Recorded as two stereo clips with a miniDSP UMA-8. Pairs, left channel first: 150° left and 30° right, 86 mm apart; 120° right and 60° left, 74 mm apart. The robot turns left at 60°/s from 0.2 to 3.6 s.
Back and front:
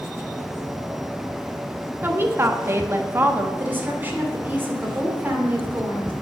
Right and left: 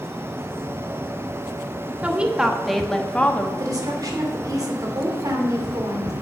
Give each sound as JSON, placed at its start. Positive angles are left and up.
{"t": 2.0, "sound": "a woman speaking", "azimuth_deg": 10, "distance_m": 1.0}
{"t": 3.6, "sound": "a woman speaking", "azimuth_deg": 35, "distance_m": 2.5}